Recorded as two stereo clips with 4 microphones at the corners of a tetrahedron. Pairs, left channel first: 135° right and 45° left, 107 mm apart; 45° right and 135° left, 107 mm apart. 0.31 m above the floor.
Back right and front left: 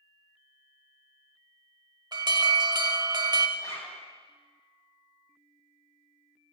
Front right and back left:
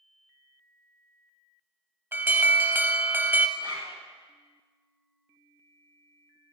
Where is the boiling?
I don't hear boiling.